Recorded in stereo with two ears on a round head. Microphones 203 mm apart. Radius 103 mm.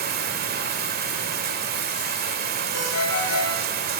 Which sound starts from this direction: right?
Running water, at 0.0 s.